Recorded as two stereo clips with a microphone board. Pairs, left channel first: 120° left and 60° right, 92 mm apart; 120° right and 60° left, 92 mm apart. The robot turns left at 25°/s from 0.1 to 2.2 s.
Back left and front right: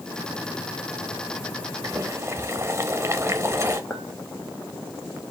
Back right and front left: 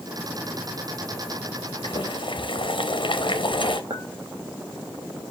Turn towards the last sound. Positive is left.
turn(degrees=55)